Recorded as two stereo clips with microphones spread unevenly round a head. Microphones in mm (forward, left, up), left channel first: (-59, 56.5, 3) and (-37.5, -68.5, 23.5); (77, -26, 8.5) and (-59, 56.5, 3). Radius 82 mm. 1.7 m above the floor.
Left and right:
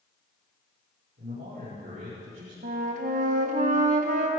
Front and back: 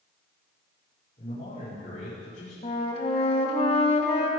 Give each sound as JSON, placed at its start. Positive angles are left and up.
{"t": 1.2, "sound": "a man speaking", "azimuth_deg": -85, "distance_m": 6.0}
{"t": 2.6, "sound": "a flute", "azimuth_deg": -90, "distance_m": 1.5}